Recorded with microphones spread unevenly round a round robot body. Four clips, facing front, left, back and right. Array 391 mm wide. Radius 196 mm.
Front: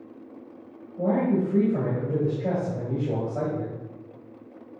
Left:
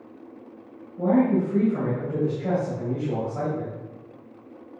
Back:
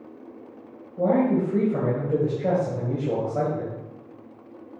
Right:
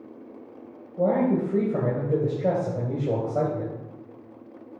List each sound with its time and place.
1.0 s a man speaking: 130° right, 2.5 m